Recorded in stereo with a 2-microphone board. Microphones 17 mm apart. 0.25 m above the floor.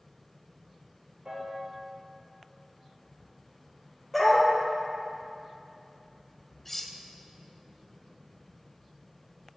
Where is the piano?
55° right (ahead or behind), 2.5 m.